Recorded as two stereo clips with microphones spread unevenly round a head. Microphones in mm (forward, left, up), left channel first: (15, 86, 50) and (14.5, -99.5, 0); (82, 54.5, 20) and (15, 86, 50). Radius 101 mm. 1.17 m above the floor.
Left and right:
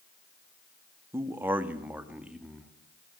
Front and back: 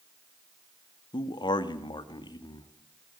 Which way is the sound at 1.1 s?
15° right.